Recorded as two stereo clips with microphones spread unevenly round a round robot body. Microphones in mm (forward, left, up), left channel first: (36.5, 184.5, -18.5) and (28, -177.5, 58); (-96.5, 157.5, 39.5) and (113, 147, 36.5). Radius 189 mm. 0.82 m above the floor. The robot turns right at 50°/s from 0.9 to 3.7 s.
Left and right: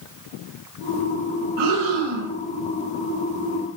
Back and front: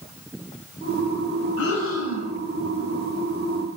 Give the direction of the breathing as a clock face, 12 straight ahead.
5 o'clock.